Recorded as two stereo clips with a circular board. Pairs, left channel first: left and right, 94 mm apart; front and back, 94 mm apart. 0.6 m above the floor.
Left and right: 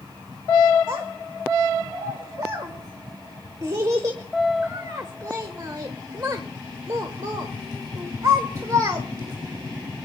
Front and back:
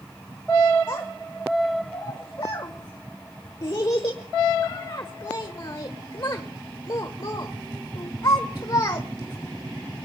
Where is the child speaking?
45° right, 1.0 m.